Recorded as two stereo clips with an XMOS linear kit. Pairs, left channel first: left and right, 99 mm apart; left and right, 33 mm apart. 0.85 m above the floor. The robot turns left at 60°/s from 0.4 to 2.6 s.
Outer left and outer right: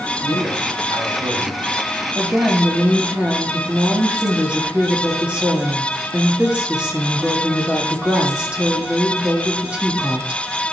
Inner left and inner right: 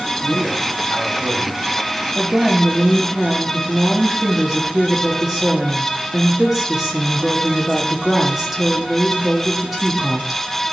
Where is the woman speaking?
35° right (ahead or behind), 1.5 m; by 10.4 s 10° right (ahead or behind), 1.5 m.